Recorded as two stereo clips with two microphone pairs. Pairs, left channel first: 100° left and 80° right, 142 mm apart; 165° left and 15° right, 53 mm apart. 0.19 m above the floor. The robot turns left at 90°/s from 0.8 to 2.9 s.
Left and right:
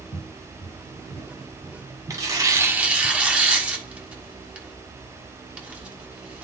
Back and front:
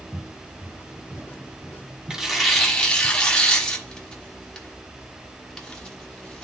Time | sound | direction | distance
0.1 | footsteps | 80° left | 4 m
2.1 | tearing paper | 75° right | 1.5 m